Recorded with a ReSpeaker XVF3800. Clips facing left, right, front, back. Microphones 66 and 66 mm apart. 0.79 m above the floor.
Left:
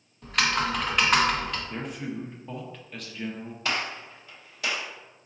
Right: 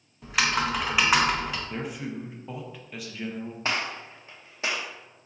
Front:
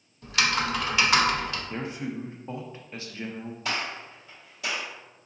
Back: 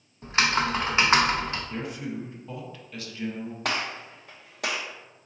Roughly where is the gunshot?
Behind right.